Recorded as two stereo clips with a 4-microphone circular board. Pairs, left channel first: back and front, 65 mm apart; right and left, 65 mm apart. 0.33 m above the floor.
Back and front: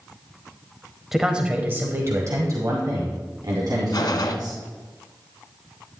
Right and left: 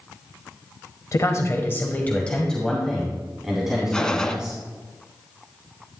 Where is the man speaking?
80° right, 1.2 m; by 4.6 s 15° left, 3 m.